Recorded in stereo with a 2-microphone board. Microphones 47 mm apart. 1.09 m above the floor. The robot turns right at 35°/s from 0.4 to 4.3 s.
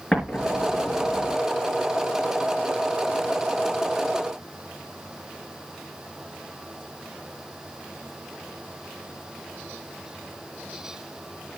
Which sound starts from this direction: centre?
An explosion, at 0.1 s.